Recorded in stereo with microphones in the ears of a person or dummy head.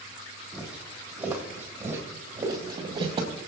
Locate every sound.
0.5 s footsteps: 5° right (ahead or behind), 3.5 m; by 3.4 s 35° right (ahead or behind), 2.5 m